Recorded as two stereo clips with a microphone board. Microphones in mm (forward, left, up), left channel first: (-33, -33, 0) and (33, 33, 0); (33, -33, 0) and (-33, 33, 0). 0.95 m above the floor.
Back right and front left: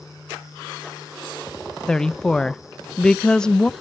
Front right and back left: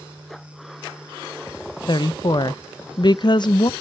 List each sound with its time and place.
1.9 s a woman speaking: 55° right, 0.5 m